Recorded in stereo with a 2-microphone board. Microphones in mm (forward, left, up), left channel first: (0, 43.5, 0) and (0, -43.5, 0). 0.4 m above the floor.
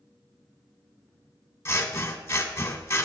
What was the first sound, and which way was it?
Scissors, 30° left (ahead or behind).